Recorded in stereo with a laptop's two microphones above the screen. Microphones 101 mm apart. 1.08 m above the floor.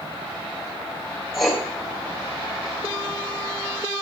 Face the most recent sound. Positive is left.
turn(degrees=0)  # may be behind; listen again after turning